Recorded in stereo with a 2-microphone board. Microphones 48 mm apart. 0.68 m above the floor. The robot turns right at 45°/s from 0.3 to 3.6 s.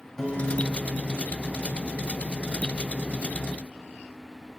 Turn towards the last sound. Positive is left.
turn(degrees=155)